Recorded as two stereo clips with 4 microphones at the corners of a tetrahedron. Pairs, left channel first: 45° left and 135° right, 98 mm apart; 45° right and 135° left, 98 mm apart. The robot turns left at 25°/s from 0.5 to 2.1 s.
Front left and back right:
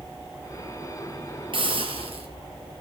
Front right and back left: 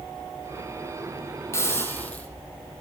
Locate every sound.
1.5 s a hiss: 105° right, 4.5 m; by 2.3 s 120° right, 4.5 m